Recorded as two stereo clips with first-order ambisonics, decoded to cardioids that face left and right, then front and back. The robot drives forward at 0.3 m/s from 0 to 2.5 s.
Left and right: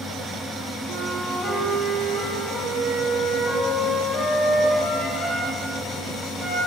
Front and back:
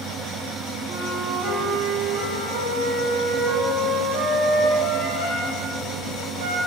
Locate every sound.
0.9 s a flute: 170° left, 1.6 m; by 6.6 s 175° left, 2 m